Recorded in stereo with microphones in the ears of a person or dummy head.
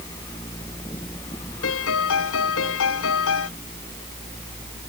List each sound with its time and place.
1.6 s a piano: 75° left (ahead or behind)